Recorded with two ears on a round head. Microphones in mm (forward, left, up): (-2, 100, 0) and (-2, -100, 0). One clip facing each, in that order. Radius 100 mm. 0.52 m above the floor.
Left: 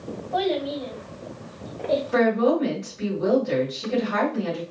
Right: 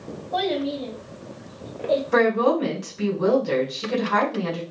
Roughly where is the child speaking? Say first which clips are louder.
Even; right.